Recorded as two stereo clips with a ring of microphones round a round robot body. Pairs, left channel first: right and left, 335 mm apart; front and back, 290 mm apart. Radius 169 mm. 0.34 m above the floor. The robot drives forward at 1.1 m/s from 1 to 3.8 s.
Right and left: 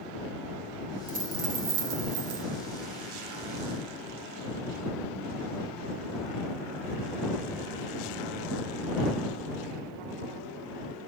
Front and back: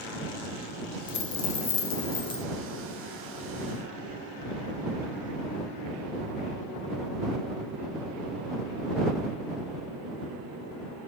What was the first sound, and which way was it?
A dropped coin, 25° left.